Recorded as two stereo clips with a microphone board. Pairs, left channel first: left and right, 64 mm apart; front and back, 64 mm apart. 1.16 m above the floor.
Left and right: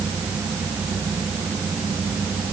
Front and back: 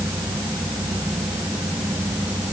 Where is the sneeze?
No sneeze in this recording.